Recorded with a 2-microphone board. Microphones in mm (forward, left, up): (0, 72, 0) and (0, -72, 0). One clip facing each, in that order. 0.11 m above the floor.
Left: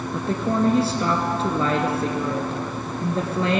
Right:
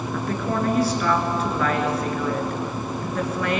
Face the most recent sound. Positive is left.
turn(degrees=30)  # may be behind; listen again after turning